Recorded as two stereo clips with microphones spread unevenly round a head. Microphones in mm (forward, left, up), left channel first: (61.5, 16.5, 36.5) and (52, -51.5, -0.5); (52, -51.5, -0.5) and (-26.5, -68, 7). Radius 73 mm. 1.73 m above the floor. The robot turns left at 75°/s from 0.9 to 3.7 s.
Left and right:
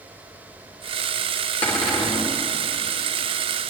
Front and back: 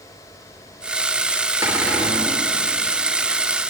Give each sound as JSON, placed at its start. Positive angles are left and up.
{"t": 1.6, "sound": "a cupboard door", "azimuth_deg": 120, "distance_m": 3.5}